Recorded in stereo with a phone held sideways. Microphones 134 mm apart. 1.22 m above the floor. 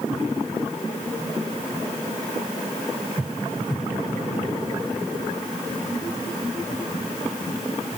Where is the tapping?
I don't hear tapping.